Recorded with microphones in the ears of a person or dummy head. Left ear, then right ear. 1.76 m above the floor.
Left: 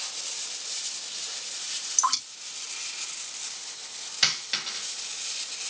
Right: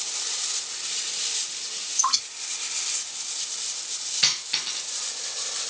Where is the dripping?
55° left (ahead or behind), 4 m.